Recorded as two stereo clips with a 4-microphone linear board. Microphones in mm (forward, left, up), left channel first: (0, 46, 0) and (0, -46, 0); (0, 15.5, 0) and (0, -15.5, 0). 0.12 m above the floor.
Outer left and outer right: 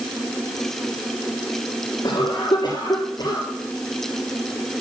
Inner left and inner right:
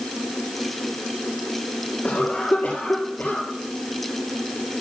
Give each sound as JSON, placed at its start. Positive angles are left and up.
{"t": 2.0, "sound": "a cough", "side_deg": 45, "distance_m": 2.5}